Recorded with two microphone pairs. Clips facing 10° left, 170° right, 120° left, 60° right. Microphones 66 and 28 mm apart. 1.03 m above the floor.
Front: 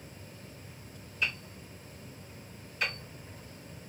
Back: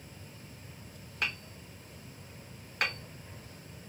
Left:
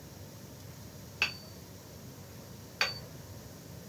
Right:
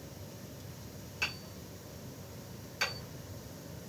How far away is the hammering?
About 0.9 m.